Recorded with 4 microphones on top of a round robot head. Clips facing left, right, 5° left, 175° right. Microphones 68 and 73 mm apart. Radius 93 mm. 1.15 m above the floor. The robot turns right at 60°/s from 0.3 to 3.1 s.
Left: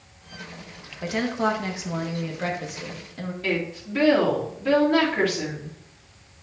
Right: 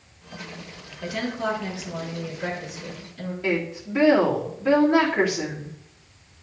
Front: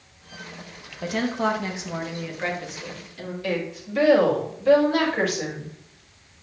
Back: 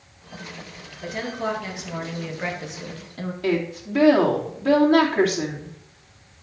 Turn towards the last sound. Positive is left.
turn(degrees=-170)